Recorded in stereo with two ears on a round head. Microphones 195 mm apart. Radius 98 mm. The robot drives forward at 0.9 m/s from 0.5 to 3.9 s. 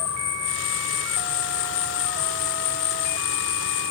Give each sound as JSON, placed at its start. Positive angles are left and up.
{"t": 0.0, "sound": "an insect", "side_deg": 55}